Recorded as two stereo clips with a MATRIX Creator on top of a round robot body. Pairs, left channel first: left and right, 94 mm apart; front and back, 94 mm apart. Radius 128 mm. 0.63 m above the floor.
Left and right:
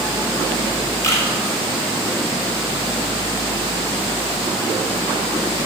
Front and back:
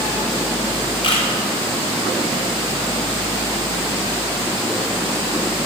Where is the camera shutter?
30° left, 2 m.